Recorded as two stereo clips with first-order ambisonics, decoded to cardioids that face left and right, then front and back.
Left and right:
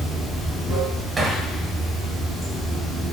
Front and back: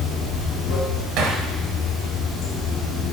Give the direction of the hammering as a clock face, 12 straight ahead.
5 o'clock.